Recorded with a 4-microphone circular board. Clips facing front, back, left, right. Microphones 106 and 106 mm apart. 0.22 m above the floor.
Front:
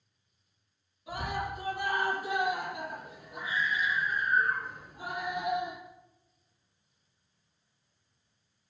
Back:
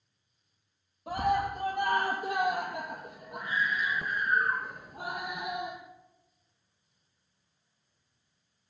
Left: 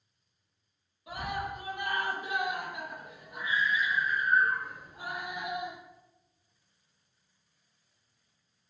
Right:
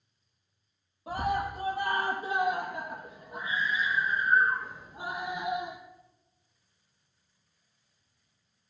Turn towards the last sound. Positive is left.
turn(degrees=-155)